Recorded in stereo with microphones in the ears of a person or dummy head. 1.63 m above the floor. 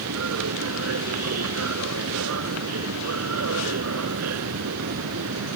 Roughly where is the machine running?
Right.